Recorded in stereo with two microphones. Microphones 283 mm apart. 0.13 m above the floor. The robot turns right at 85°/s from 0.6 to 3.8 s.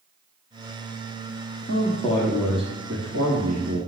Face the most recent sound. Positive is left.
turn(degrees=-55)